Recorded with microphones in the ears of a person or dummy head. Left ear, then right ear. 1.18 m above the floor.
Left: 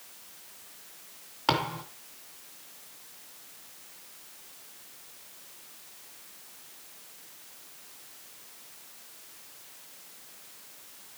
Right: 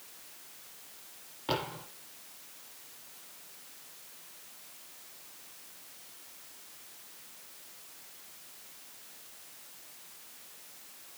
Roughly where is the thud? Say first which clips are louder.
Left 7 dB; left.